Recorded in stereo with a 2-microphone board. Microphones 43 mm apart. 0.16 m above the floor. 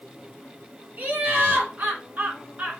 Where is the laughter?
45° right (ahead or behind), 2.0 m.